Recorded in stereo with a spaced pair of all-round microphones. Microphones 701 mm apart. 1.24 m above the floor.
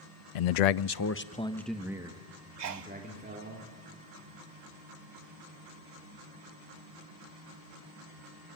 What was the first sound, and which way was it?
A man speaking, 75° left (ahead or behind).